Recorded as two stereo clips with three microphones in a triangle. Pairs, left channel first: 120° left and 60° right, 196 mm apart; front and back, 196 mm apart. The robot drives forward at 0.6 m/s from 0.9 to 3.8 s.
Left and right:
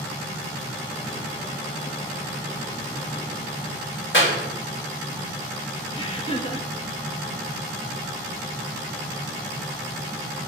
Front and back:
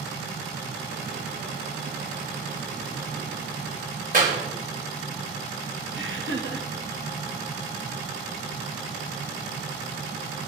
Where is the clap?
135° left, 4 m.